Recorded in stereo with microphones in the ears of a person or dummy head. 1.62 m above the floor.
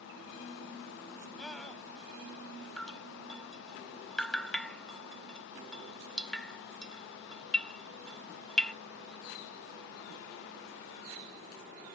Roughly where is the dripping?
Centre.